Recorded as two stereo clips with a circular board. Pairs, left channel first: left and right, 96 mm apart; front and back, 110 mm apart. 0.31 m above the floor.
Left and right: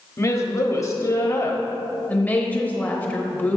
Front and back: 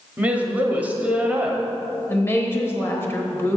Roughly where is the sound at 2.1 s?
Ahead left.